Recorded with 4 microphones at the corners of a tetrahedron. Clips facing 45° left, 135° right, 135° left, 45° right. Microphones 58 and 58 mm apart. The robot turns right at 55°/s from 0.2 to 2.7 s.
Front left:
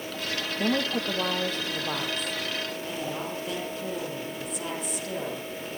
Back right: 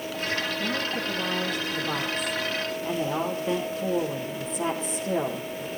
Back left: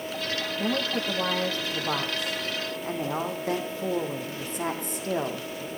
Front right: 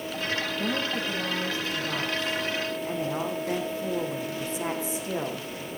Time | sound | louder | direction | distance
0.6 | a woman speaking | front left 2 dB, back left 1 dB | 50° left | 3.5 m